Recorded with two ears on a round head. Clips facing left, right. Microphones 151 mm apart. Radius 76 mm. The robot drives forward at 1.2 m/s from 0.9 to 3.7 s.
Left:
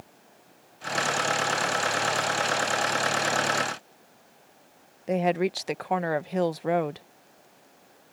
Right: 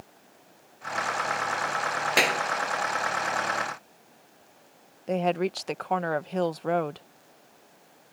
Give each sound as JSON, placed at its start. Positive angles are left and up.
{"t": 2.2, "sound": "a clap", "side_deg": -85}
{"t": 5.1, "sound": "a woman speaking", "side_deg": 5}